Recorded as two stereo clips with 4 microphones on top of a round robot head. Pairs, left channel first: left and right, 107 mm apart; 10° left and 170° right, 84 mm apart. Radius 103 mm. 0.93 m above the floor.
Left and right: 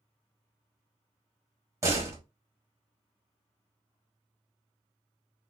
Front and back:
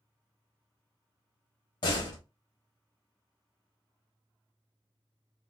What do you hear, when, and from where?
1.8 s a door slam: 25° right, 1.2 m